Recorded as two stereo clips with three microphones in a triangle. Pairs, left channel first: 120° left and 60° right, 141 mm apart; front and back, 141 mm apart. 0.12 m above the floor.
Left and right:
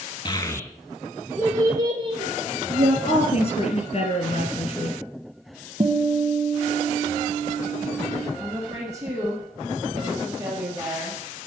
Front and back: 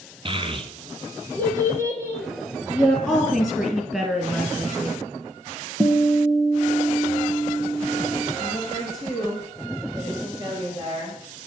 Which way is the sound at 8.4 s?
125° right.